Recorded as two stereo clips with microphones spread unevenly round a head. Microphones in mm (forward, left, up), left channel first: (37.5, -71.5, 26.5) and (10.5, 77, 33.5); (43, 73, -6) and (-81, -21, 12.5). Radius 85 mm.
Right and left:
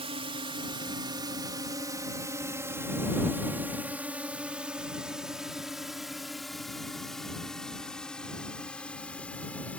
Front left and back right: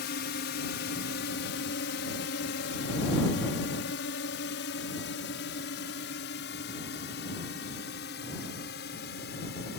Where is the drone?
50° left; by 9.8 s straight ahead.